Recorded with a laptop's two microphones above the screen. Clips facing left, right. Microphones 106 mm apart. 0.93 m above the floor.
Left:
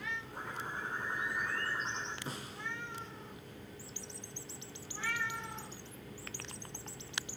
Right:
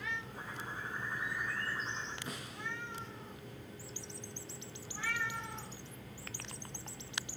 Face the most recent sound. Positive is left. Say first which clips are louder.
# left 1 dB
turn(degrees=30)  # may be behind; listen again after turning